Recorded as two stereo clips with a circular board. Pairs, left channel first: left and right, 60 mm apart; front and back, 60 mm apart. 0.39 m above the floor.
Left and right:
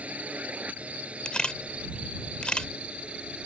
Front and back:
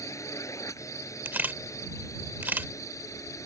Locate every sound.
0.0 s a drone: 25° right; by 3.5 s 20° right
1.2 s a camera shutter: 150° left